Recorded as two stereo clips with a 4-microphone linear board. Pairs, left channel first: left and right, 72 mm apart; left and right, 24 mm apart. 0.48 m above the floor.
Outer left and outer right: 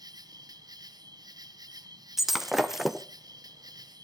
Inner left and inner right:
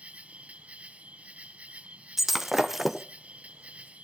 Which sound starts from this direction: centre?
Breaking glass, at 2.2 s.